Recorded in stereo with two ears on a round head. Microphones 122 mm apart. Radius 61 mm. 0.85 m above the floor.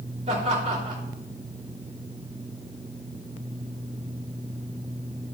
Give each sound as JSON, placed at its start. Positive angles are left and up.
{"t": 0.3, "sound": "laughter", "side_deg": -45, "distance_m": 2.5}